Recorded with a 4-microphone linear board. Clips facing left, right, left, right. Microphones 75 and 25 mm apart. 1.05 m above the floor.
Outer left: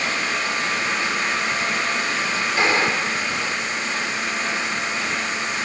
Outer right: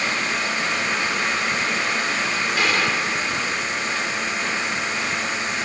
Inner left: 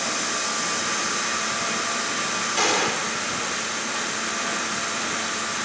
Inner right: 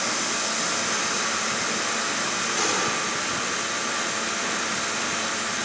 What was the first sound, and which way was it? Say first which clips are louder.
A gunshot: outer left 3 dB, inner left 4 dB; 25° left (ahead or behind).